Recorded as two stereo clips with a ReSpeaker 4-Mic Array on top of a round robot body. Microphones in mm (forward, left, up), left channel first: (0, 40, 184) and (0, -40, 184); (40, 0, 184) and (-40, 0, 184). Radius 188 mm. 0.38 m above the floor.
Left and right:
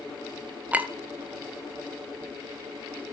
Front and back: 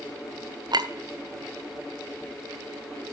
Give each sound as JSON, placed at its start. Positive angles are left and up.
{"t": 0.7, "sound": "a clink", "azimuth_deg": -160, "distance_m": 1.7}